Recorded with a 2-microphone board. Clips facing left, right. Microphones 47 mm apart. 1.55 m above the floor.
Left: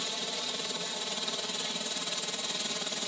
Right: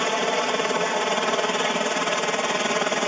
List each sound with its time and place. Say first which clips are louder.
0.0 s a helicopter: right 15 dB; 55° right (ahead or behind)